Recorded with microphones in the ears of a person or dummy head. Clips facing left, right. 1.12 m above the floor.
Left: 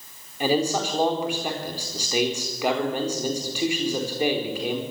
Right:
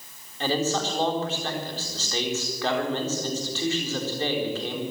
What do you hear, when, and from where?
0.4 s a man speaking: 10° left (ahead or behind), 4 m